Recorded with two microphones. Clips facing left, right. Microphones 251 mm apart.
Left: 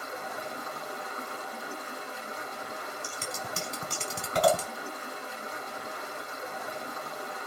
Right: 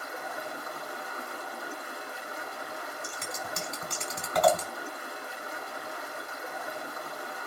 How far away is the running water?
About 6.5 m.